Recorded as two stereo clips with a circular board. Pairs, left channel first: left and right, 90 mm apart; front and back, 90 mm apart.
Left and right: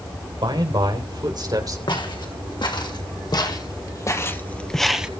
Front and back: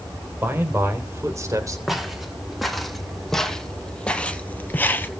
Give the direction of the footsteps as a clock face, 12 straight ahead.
9 o'clock.